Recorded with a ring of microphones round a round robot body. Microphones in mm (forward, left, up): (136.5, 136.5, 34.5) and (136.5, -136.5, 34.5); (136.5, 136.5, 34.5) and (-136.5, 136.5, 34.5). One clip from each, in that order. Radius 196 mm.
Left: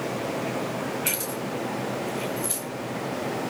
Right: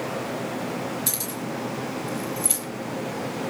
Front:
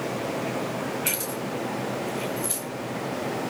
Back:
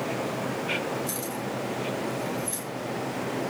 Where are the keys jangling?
35° right, 10 m; by 2.6 s 45° right, 9 m.